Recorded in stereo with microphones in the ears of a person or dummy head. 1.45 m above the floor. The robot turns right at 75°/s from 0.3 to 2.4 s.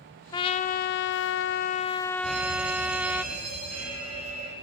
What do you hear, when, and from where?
0.3 s a trumpet: 25° left, 0.9 m; by 3.2 s straight behind, 0.9 m
2.2 s a fire alarm: 70° right (ahead or behind), 6 m; by 4.5 s 80° right, 6 m